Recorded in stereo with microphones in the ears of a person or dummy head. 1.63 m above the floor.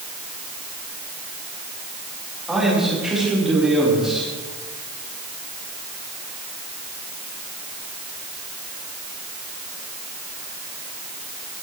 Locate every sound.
2.5 s a man speaking: 5° right (ahead or behind), 5 m